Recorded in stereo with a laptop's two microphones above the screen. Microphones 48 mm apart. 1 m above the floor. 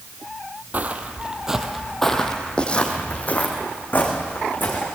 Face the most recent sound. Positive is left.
turn(degrees=45)  # may be behind; listen again after turning